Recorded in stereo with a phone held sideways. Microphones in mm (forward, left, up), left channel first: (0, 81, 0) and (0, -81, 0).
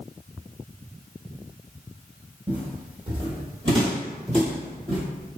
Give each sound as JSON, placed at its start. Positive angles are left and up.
{"t": 2.5, "sound": "footsteps", "side_deg": -25, "distance_m": 1.7}